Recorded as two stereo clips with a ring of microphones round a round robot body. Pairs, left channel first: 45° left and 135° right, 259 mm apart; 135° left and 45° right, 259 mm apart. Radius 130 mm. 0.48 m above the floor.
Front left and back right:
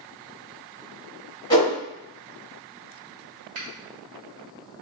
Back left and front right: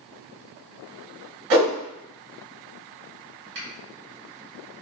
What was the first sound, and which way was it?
A whoosh, 30° right.